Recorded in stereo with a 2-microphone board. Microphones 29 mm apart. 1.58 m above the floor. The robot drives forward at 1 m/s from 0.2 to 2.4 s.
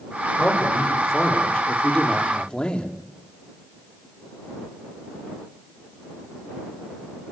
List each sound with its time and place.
0.4 s a man speaking: 20° left (ahead or behind), 5 m; by 2.9 s 30° left (ahead or behind), 3.5 m